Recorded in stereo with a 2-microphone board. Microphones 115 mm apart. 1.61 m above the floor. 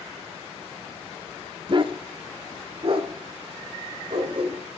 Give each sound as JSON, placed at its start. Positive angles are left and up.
{"t": 1.7, "sound": "a dog barking", "side_deg": -45, "distance_m": 1.4}